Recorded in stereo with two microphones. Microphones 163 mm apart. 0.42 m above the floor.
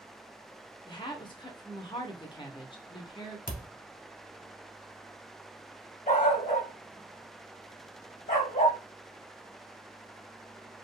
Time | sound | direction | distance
0.9 | a woman speaking | 30° left (ahead or behind) | 0.8 m
3.5 | a thud | 65° left (ahead or behind) | 0.7 m
6.1 | a dog barking | 55° left (ahead or behind) | 0.9 m